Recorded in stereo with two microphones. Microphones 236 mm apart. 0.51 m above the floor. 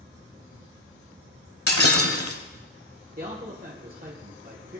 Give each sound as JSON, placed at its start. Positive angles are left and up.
{"t": 1.7, "sound": "breaking glass", "side_deg": 75, "distance_m": 1.2}
{"t": 3.2, "sound": "a man speaking", "side_deg": -40, "distance_m": 1.5}